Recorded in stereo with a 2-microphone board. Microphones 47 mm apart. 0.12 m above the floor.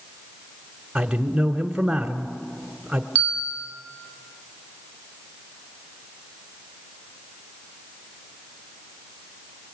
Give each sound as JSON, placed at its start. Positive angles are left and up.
{"t": 0.9, "sound": "a man speaking", "side_deg": -10, "distance_m": 1.1}
{"t": 3.1, "sound": "a bell", "side_deg": 30, "distance_m": 3.5}